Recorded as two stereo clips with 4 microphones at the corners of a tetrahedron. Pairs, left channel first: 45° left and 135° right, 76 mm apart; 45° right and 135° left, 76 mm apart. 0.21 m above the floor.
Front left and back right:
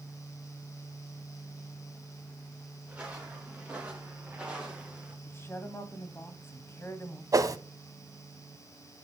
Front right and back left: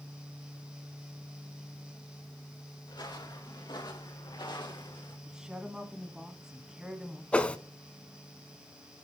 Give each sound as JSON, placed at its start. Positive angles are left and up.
{"t": 2.9, "sound": "footsteps", "azimuth_deg": -60, "distance_m": 3.5}
{"t": 5.2, "sound": "a woman speaking", "azimuth_deg": 60, "distance_m": 1.4}
{"t": 7.3, "sound": "a whoosh", "azimuth_deg": -110, "distance_m": 0.6}